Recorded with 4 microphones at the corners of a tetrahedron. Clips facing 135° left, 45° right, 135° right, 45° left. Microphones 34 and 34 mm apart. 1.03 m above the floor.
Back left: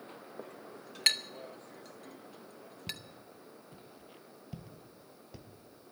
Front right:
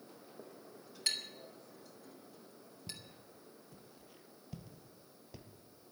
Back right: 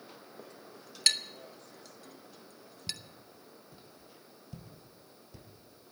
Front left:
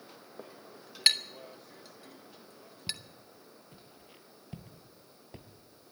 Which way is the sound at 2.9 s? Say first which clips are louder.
Back left 7 dB, front left 2 dB; 100° left.